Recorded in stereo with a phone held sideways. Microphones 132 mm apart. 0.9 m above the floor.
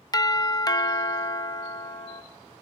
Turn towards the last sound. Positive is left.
turn(degrees=30)  # may be behind; listen again after turning